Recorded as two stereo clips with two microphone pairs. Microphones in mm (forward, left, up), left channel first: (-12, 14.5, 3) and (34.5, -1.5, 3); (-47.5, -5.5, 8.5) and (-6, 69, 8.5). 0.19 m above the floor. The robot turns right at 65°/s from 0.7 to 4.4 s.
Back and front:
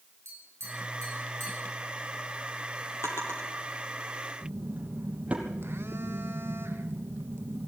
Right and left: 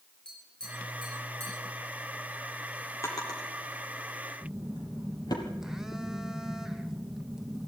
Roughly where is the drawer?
Behind.